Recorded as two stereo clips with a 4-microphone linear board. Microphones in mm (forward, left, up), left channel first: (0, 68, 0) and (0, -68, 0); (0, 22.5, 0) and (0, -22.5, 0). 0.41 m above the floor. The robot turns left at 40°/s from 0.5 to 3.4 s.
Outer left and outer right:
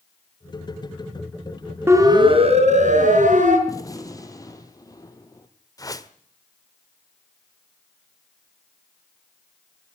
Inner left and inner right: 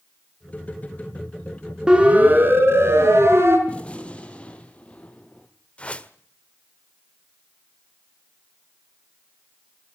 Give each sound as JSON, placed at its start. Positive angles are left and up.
{"t": 1.9, "sound": "a siren", "side_deg": -20, "distance_m": 4.5}
{"t": 3.7, "sound": "a gunshot", "side_deg": 30, "distance_m": 2.5}
{"t": 5.8, "sound": "a whoosh", "side_deg": 25, "distance_m": 1.3}